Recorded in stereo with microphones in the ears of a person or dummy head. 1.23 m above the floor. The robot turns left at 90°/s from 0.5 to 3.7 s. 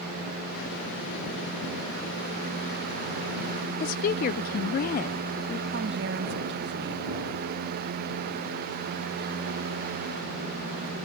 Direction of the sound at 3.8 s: 55° left (ahead or behind).